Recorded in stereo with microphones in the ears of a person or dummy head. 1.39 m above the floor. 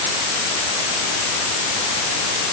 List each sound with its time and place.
Only background noise.